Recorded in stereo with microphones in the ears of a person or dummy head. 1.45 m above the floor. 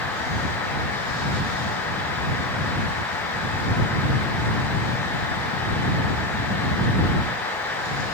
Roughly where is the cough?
I don't hear a cough.